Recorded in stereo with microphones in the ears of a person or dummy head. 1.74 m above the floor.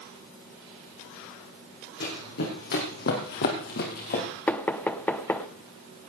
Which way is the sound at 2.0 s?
50° left (ahead or behind).